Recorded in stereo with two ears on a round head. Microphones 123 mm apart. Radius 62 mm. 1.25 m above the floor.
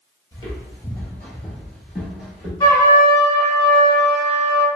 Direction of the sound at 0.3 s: 30° left (ahead or behind).